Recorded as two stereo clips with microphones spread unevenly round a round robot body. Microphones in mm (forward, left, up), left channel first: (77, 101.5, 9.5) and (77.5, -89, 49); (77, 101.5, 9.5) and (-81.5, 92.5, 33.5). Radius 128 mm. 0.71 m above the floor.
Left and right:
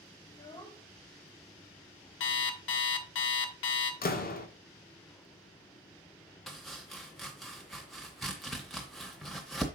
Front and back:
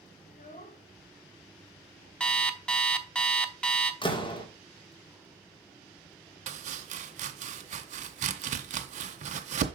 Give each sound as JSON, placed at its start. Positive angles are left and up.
{"t": 0.2, "sound": "a child speaking", "azimuth_deg": 30, "distance_m": 1.3}
{"t": 2.2, "sound": "an alarm clock", "azimuth_deg": 85, "distance_m": 1.0}
{"t": 4.0, "sound": "a door slam", "azimuth_deg": 60, "distance_m": 1.5}
{"t": 6.5, "sound": "chopping", "azimuth_deg": -170, "distance_m": 0.5}